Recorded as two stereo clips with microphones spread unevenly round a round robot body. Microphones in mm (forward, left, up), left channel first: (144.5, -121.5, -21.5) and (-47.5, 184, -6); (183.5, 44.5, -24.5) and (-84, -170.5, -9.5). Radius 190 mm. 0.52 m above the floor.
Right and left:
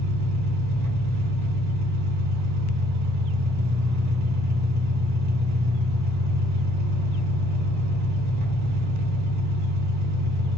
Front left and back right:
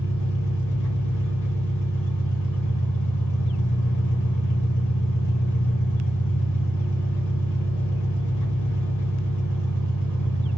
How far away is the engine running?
About 1.6 m.